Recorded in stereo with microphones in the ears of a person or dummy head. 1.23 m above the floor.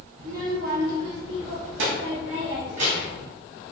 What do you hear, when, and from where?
0.2 s a child speaking: 45° right (ahead or behind), 1.3 m; by 3.2 s 65° right (ahead or behind), 1.7 m